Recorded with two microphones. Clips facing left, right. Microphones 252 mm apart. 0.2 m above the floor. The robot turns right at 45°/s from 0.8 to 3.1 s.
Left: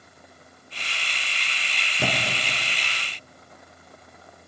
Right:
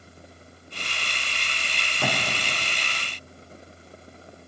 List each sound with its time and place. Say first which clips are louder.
2.0 s a thud: left 1 dB; 20° left (ahead or behind), 4.5 m; by 2.6 s 5° right (ahead or behind), 4.5 m